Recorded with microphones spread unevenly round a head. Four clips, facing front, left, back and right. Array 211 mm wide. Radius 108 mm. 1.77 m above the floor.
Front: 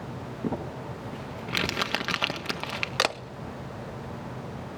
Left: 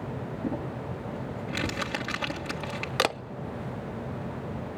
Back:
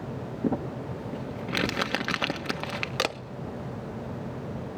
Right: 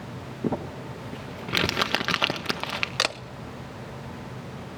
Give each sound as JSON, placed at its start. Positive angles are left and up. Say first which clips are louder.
{"t": 0.4, "sound": "crumpling", "louder": "right 5 dB, back 3 dB", "azimuth_deg": -140, "distance_m": 1.4}
{"t": 3.0, "sound": "a camera shutter", "louder": "left 4 dB, front 2 dB", "azimuth_deg": 65, "distance_m": 0.7}